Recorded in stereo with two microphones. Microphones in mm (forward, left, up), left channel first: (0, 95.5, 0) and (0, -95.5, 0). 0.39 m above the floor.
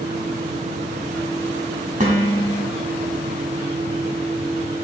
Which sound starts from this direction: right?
Dishes clattering, at 2.0 s.